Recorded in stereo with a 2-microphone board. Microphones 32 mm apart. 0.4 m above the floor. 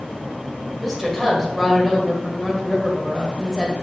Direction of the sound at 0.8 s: 5° right (ahead or behind).